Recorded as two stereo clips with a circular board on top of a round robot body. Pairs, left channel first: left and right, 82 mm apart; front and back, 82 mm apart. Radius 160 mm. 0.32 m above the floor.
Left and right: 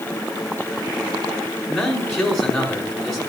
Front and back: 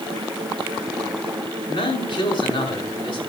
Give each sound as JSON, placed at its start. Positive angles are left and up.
{"t": 1.7, "sound": "a man speaking", "azimuth_deg": 0, "distance_m": 5.5}